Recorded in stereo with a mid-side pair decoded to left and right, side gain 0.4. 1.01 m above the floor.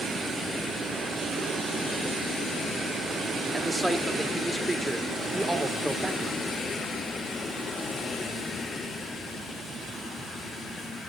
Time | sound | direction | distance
3.5 | a man speaking | straight ahead | 2.5 m